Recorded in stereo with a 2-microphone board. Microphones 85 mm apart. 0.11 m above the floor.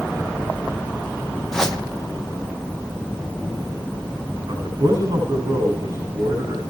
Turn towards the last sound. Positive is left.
turn(degrees=-50)  # may be behind; listen again after turning